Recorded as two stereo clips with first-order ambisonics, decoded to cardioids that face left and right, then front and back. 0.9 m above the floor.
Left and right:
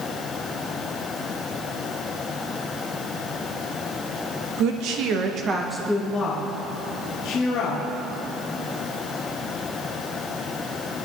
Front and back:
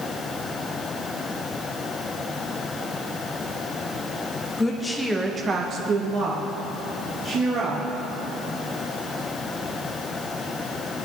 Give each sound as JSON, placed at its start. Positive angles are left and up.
{"t": 4.6, "sound": "a woman speaking", "azimuth_deg": -80, "distance_m": 1.5}